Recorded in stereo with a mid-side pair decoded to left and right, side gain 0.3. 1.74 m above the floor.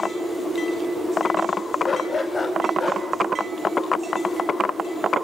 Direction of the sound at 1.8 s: 55° left.